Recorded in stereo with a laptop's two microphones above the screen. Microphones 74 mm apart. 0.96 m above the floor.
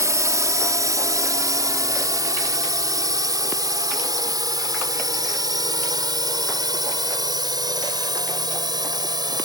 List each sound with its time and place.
0.0 s a drone: 50° right (ahead or behind); by 9.5 s 75° right (ahead or behind)